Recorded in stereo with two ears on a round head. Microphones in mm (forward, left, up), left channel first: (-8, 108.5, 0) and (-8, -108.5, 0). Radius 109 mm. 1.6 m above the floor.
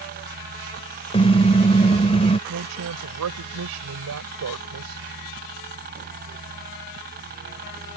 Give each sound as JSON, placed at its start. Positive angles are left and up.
{"t": 0.0, "sound": "a helicopter", "side_deg": -40}
{"t": 1.1, "sound": "a car horn", "side_deg": 25}
{"t": 2.5, "sound": "a woman speaking", "side_deg": -75}